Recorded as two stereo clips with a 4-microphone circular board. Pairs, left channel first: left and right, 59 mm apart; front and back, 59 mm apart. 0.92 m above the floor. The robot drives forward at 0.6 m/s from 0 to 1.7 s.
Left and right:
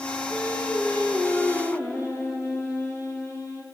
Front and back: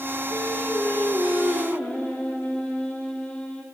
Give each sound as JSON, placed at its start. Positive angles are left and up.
{"t": 0.3, "sound": "singing", "azimuth_deg": 40, "distance_m": 2.0}